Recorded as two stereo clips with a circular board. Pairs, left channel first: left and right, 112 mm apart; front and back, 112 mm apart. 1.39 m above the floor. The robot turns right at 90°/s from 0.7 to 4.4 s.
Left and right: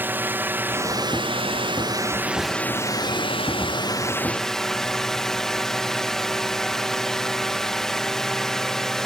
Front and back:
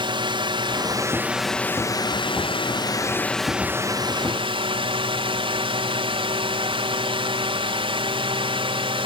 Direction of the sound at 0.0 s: 155° right.